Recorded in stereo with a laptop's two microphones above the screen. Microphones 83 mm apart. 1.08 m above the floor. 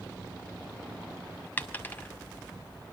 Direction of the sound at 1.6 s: 25° left (ahead or behind).